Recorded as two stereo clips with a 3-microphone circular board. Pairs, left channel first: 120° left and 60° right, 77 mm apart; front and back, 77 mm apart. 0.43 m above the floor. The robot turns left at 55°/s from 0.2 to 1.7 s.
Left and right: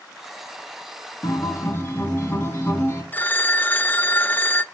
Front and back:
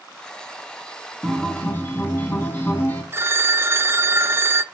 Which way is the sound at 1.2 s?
85° left.